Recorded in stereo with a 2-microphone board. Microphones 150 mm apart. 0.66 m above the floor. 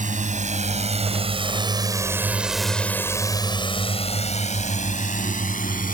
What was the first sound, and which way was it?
A drone, 60° right (ahead or behind).